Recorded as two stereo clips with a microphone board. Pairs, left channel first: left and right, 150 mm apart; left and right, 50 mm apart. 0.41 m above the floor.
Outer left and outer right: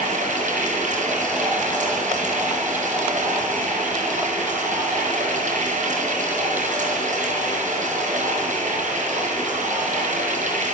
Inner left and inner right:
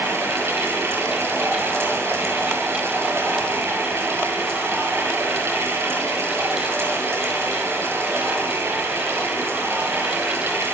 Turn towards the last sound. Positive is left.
turn(degrees=-60)  # may be behind; listen again after turning